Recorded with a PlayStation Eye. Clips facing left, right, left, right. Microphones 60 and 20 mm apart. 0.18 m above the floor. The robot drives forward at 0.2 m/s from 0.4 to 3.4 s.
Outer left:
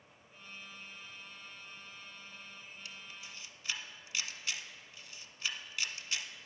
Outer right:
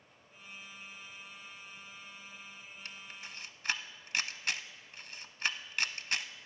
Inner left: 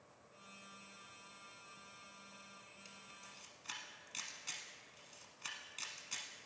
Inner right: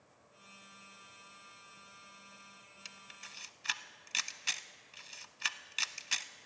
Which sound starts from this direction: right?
A camera shutter, at 2.9 s.